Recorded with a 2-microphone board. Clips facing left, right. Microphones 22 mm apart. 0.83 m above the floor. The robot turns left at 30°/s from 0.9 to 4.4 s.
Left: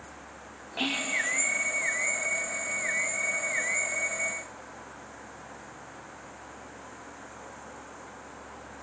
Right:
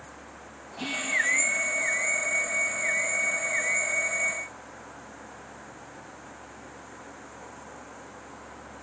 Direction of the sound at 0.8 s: 60° left (ahead or behind).